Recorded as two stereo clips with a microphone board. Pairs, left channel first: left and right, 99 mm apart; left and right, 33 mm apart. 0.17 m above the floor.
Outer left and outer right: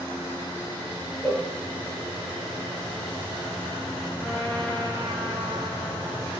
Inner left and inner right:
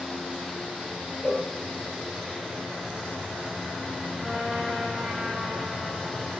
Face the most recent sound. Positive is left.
turn(degrees=15)  # may be behind; listen again after turning